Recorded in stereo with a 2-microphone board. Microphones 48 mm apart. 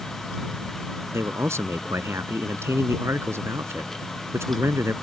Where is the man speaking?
75° right (ahead or behind).